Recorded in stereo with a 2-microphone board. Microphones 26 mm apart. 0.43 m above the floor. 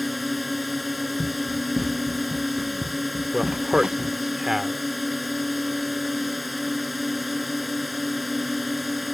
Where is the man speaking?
20° right (ahead or behind).